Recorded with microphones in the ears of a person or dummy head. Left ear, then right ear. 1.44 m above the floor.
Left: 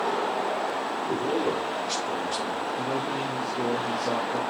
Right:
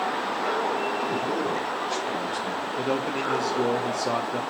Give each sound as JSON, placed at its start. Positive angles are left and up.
{"t": 1.0, "sound": "a man speaking", "side_deg": 60, "distance_m": 3.0}
{"t": 2.8, "sound": "a man speaking", "side_deg": -35, "distance_m": 0.5}